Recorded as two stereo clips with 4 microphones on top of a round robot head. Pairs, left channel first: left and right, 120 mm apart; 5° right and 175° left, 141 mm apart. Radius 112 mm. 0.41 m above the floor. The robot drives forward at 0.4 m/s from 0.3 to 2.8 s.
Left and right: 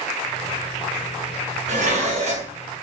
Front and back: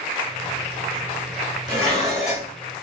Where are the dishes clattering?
85° right, 1.4 m; by 2.5 s 100° right, 1.4 m.